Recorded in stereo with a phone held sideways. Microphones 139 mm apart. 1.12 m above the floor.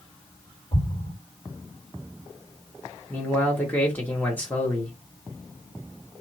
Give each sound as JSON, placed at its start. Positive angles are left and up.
{"t": 0.7, "sound": "an explosion", "side_deg": 55, "distance_m": 2.0}
{"t": 3.1, "sound": "a man speaking", "side_deg": 10, "distance_m": 1.1}